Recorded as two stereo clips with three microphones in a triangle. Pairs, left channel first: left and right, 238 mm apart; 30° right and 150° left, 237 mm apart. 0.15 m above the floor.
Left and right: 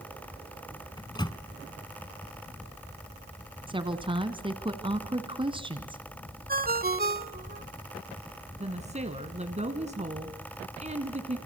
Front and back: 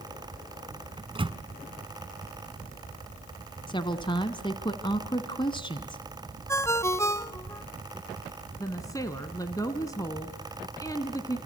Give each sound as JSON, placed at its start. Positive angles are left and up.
{"t": 1.0, "sound": "a microwave", "azimuth_deg": 130, "distance_m": 0.9}
{"t": 3.7, "sound": "a woman speaking", "azimuth_deg": -65, "distance_m": 1.2}
{"t": 6.5, "sound": "a ringtone", "azimuth_deg": -105, "distance_m": 1.0}
{"t": 8.6, "sound": "a woman speaking", "azimuth_deg": -90, "distance_m": 1.5}